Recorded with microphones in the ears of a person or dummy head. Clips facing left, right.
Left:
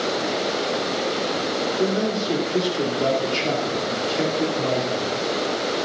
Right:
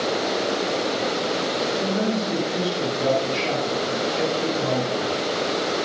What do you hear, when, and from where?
1.8 s a man speaking: 65° left (ahead or behind), 3.5 m